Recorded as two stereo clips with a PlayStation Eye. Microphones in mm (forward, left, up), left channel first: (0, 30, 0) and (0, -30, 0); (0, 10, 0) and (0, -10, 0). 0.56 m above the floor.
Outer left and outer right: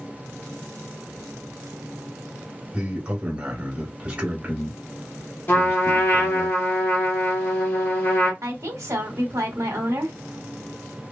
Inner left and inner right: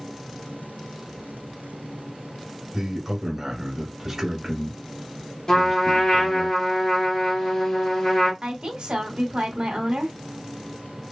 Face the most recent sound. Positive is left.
turn(degrees=-60)  # may be behind; listen again after turning